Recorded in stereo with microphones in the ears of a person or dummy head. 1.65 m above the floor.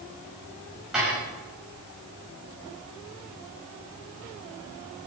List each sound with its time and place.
0.9 s dishes clattering: 5° right (ahead or behind), 5.5 m